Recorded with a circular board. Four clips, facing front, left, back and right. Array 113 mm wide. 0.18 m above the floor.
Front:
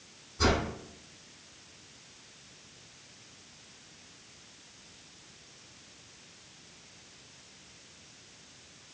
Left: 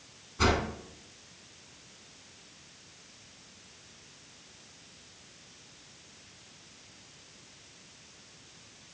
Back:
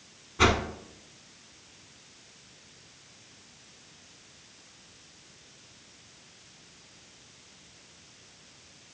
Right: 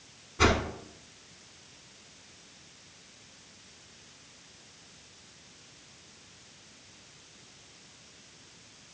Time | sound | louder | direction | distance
0.4 | a whoosh | right 2 dB, back 3 dB | 165° right | 1.0 m